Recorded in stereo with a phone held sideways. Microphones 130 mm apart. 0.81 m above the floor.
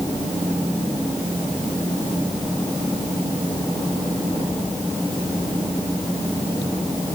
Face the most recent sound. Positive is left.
No sound to turn to.